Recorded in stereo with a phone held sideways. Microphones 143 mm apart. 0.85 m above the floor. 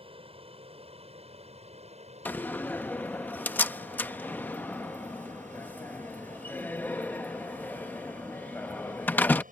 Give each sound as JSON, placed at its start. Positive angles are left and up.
{"t": 0.0, "sound": "an aircraft", "side_deg": -40}
{"t": 2.2, "sound": "a door slam", "side_deg": 15}